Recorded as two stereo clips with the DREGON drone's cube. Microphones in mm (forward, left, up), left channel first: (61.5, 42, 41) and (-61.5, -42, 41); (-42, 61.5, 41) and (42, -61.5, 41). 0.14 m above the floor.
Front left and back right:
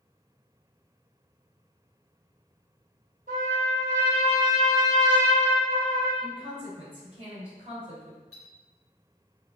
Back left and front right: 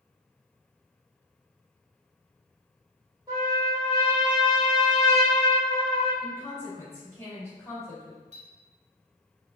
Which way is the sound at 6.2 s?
170° right.